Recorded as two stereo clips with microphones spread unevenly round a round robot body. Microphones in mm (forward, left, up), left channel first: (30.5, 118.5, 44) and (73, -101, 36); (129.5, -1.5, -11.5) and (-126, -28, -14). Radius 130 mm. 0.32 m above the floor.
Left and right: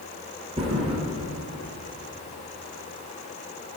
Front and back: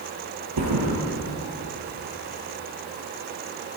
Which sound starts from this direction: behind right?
A thud, at 0.6 s.